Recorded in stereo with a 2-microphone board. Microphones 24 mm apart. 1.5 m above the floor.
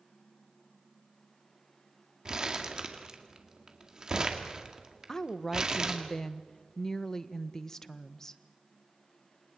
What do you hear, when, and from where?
2.2 s crumpling: 30° right (ahead or behind), 2 m
5.1 s a woman speaking: 20° left (ahead or behind), 0.9 m